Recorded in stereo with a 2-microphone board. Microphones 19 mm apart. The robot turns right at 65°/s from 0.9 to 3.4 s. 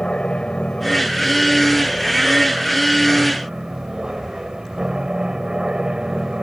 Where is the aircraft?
55° left; by 6.4 s 145° right.